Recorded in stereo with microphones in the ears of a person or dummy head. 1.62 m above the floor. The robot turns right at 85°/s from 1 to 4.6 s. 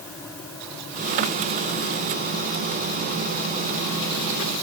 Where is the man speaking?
No man speaking in this recording.